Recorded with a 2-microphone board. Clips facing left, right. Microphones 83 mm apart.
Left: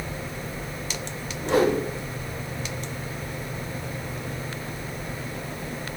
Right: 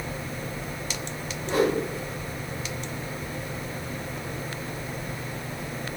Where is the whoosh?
80° left, 5 m.